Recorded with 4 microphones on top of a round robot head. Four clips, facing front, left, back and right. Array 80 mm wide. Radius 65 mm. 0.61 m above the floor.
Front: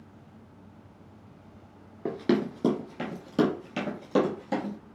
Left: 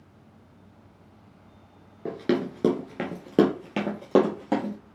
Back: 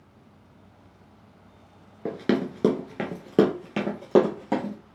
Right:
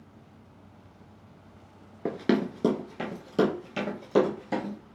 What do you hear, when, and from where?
2.0 s running footsteps: 105° right, 0.5 m; by 4.8 s 130° left, 1.6 m